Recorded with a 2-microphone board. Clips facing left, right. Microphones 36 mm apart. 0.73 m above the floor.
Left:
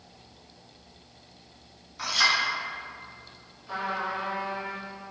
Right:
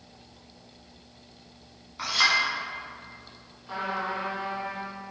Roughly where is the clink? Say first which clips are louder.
Right 1 dB; centre.